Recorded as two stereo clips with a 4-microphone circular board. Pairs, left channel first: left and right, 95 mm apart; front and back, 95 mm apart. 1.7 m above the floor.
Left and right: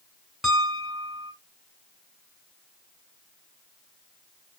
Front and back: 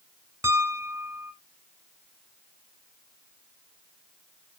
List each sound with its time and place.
0.4 s a piano: 175° right, 1.3 m